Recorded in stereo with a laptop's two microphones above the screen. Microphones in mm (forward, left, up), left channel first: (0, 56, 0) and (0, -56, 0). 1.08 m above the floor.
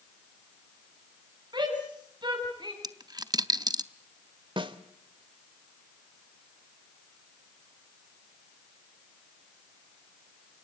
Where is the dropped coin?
35° right (ahead or behind), 0.7 m.